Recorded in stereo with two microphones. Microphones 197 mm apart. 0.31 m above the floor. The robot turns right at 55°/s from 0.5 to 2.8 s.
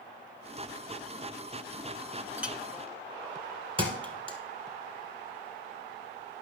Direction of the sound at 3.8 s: 25° right (ahead or behind).